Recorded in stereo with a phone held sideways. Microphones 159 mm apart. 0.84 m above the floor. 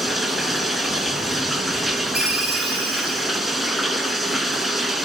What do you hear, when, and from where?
0.0 s running water: centre (ahead or behind), 1.7 m
2.1 s a ringtone: 80° right, 3.5 m